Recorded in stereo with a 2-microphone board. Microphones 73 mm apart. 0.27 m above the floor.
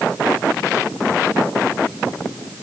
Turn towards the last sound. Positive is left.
No sound to turn to.